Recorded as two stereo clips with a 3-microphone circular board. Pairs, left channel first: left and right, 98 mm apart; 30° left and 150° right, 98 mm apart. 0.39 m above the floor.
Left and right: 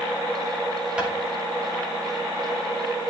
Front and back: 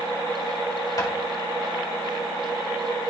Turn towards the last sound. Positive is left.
turn(degrees=-15)